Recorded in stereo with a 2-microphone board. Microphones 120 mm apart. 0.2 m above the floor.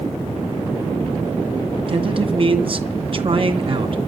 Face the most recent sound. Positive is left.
turn(degrees=-50)  # may be behind; listen again after turning